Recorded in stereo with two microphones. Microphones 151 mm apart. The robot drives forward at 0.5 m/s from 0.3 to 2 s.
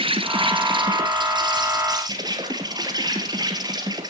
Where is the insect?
40° right (ahead or behind), 1.9 m; by 4.1 s 30° right (ahead or behind), 2.5 m.